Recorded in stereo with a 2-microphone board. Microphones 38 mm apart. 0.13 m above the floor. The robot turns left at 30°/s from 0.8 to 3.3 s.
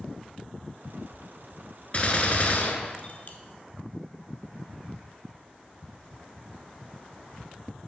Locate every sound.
1.9 s a gunshot: 130° left, 0.9 m; by 3.4 s 85° left, 0.9 m